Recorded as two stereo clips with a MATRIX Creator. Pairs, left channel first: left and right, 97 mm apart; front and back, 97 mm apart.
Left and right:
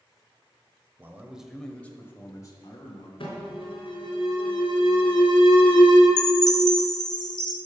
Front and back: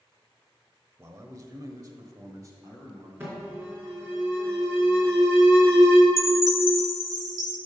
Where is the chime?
130° left, 0.8 m.